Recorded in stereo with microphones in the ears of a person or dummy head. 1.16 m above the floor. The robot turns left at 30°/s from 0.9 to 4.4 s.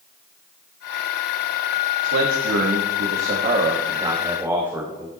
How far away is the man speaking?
About 1.5 m.